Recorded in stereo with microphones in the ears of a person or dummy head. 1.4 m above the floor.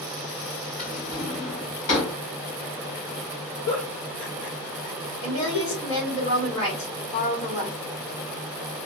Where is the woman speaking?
30° left (ahead or behind), 2 m.